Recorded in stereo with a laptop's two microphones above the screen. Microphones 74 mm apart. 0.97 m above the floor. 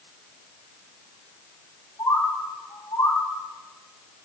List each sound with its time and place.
2.0 s a bird: 80° left, 3 m